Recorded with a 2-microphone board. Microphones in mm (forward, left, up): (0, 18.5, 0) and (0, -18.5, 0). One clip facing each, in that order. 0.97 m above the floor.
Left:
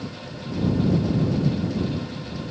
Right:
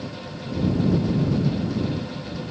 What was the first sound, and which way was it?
Only background noise.